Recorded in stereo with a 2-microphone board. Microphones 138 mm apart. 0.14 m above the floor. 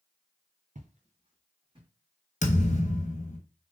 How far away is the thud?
About 0.9 m.